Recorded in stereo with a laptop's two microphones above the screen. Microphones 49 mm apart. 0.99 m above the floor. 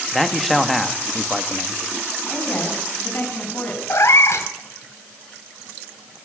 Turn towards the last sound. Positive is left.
turn(degrees=70)  # may be behind; listen again after turning